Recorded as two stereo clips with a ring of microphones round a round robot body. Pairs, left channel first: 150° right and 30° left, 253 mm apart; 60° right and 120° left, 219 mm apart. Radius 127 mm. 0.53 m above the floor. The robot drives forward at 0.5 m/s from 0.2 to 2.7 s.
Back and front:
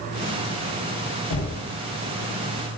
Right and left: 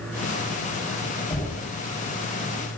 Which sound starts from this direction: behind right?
Knocking, at 1.3 s.